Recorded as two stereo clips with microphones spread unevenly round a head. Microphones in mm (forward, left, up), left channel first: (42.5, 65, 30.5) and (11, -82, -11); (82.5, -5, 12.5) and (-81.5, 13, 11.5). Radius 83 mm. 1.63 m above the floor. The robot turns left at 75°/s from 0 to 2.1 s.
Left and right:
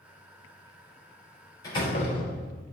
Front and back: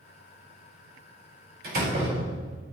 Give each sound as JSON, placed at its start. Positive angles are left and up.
{"t": 1.6, "sound": "a door slam", "azimuth_deg": 150, "distance_m": 5.5}